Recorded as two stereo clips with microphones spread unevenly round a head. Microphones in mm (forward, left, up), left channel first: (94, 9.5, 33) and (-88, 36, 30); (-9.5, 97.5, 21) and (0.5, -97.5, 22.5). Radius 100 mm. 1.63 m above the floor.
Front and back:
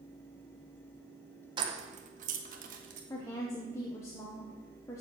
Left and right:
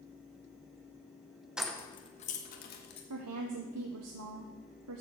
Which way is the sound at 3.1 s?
85° right.